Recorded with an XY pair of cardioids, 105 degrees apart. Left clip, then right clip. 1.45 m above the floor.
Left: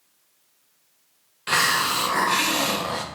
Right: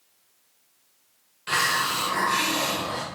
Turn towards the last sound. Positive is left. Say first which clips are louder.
# left 3 dB
turn(degrees=35)